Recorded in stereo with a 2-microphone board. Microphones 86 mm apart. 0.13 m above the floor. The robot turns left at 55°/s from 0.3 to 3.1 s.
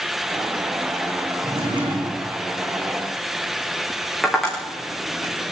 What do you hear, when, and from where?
1.4 s a drawer: 90° right, 5.5 m; by 2.3 s 140° right, 5.5 m
4.2 s tapping: centre (ahead or behind), 9.5 m